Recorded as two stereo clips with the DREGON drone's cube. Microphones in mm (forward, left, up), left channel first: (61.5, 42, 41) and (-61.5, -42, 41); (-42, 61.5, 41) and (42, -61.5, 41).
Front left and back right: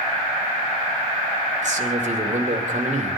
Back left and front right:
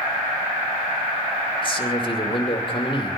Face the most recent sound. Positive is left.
turn(degrees=180)